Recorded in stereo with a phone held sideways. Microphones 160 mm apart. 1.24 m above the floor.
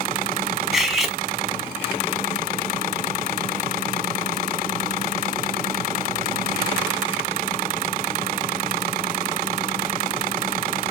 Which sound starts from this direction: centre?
Cutlery clinking, at 0.7 s.